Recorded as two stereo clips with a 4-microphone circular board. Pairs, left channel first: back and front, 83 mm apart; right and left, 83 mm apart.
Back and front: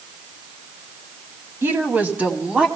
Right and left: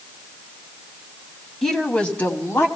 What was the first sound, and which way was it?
A woman speaking, 10° right.